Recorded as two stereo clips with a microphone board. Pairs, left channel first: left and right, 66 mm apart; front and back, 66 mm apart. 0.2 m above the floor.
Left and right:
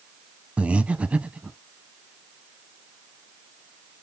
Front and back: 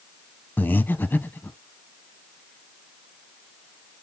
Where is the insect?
I don't hear an insect.